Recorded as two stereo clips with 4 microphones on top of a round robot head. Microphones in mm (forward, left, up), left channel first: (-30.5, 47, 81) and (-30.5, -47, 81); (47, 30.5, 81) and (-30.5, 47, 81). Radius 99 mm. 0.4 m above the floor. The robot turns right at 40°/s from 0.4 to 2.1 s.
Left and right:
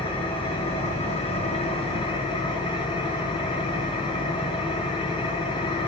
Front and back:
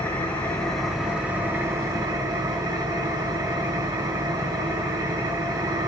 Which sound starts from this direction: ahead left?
An engine running, at 0.0 s.